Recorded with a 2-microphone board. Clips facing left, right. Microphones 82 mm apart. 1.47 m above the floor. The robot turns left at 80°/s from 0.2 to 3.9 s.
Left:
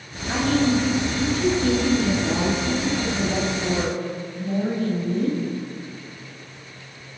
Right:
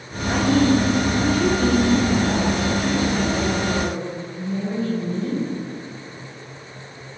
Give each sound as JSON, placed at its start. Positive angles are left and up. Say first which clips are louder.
{"t": 0.3, "sound": "a woman speaking", "louder": "right 3 dB", "azimuth_deg": 0, "distance_m": 8.5}